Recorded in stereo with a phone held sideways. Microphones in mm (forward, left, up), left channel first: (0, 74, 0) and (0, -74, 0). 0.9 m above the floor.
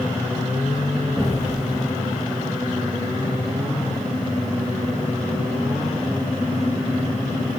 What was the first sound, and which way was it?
An explosion, 5° left (ahead or behind).